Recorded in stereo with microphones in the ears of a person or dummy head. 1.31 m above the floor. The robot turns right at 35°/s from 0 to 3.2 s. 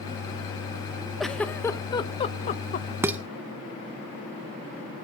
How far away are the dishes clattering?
About 0.6 m.